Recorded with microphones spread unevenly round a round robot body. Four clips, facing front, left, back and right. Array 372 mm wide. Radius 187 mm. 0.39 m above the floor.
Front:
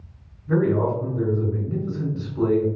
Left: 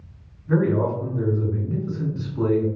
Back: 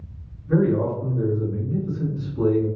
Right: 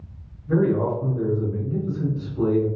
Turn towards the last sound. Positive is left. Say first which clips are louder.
# even, even
turn(degrees=35)